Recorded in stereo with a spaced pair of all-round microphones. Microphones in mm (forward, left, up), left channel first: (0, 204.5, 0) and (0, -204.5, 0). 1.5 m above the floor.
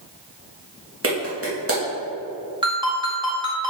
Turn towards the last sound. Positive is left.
turn(degrees=-10)  # may be behind; listen again after turning